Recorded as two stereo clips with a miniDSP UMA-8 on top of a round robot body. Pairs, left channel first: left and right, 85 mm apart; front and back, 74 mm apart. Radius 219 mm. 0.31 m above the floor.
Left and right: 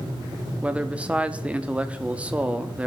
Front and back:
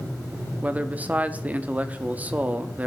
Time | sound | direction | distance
0.6 | a man speaking | 145° right | 0.8 m